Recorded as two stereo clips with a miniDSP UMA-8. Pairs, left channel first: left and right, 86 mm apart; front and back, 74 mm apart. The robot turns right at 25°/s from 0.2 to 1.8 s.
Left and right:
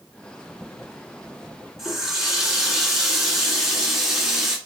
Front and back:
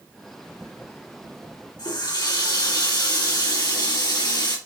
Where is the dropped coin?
No dropped coin in this recording.